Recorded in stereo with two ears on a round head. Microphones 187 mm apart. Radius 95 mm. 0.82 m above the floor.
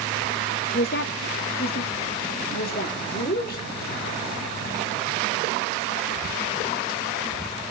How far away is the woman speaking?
About 0.7 m.